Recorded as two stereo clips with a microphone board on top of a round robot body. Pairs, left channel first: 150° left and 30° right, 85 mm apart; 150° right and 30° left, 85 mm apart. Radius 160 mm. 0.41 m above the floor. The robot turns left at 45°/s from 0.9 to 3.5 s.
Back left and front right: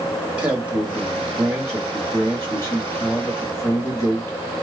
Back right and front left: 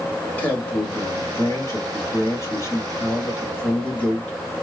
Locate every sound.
0.4 s a man speaking: 95° right, 1.6 m; by 4.6 s 150° left, 1.6 m